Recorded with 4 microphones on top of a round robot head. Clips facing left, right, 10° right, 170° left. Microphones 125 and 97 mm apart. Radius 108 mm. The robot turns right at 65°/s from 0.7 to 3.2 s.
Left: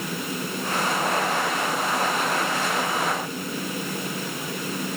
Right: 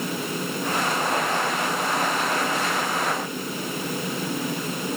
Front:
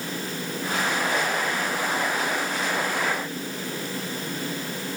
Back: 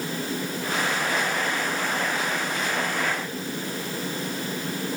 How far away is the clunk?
No clunk in this recording.